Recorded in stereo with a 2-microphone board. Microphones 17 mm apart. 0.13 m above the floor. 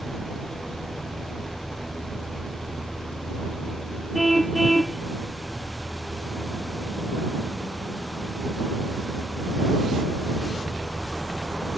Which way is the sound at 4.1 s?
5° left (ahead or behind).